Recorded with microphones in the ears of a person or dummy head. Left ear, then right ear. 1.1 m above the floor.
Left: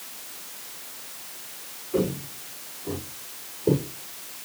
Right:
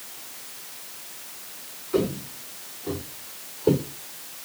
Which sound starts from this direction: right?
Footsteps, at 1.9 s.